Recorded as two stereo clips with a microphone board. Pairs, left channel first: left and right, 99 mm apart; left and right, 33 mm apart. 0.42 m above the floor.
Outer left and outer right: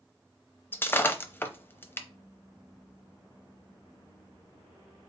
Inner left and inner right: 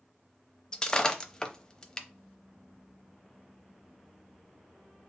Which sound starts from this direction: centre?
Breaking glass, at 0.7 s.